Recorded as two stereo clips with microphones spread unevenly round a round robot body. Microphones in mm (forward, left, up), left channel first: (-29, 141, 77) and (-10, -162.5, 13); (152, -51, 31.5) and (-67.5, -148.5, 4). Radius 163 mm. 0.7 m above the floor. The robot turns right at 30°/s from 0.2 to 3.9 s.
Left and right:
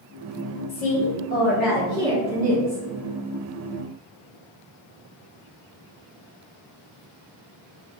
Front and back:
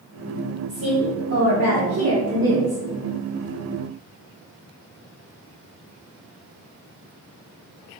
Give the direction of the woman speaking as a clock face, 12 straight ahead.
7 o'clock.